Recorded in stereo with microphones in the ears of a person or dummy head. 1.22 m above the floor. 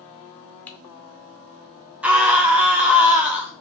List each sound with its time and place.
0.7 s typing on a keyboard: 5° left (ahead or behind), 0.6 m
2.0 s a scream: 15° right (ahead or behind), 0.6 m